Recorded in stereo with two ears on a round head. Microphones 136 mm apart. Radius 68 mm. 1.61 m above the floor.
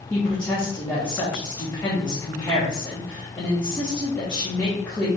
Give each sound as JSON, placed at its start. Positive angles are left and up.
{"t": 0.1, "sound": "a woman speaking", "side_deg": 10, "distance_m": 1.0}